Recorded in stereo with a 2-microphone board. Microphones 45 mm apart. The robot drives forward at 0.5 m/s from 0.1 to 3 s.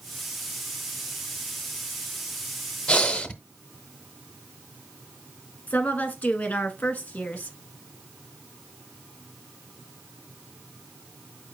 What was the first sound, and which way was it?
Breathing, 20° left (ahead or behind).